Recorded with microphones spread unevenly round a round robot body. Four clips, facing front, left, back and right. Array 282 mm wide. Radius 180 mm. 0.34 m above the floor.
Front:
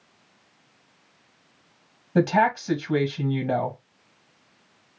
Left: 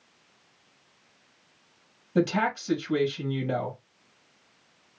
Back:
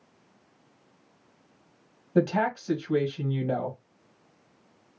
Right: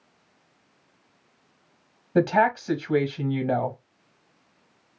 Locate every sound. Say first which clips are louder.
2.1 s a woman speaking: right 5 dB, front 4 dB; 45° right, 1.5 m